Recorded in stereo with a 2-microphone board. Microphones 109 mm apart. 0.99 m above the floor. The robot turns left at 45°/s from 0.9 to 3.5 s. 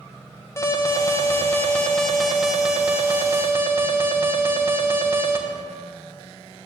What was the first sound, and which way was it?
An alarm, 25° left (ahead or behind).